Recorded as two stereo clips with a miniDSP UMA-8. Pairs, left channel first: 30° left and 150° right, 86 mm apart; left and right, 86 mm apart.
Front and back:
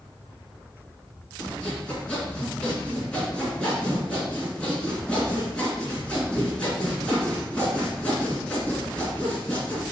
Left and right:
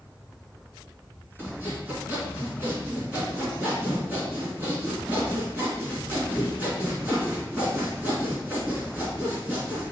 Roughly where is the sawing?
Ahead right.